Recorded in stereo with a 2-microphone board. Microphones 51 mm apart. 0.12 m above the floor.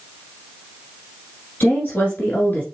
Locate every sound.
1.6 s a woman speaking: 40° left (ahead or behind), 1.6 m